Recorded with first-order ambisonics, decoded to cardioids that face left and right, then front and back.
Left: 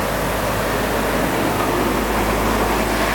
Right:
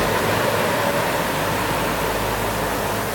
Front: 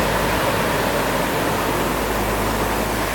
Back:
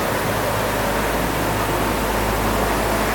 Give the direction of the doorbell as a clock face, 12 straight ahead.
I don't hear a doorbell.